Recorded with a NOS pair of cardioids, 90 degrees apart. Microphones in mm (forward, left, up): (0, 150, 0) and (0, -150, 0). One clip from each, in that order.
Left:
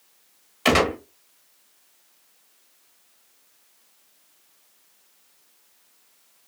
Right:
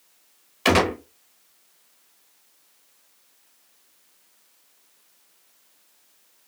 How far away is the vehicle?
I don't hear a vehicle.